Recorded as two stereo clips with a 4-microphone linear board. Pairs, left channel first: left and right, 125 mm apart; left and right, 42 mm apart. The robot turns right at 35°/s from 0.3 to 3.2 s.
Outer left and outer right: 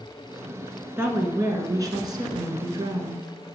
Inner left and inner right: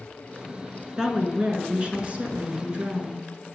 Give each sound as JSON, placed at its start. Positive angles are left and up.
{"t": 1.0, "sound": "a woman speaking", "azimuth_deg": -145, "distance_m": 1.2}